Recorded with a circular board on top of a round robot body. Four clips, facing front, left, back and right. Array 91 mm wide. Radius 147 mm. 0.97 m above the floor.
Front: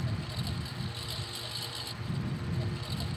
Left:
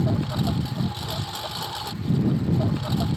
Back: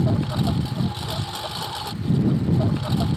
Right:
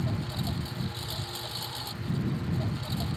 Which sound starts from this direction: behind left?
A lawn mower, at 0.0 s.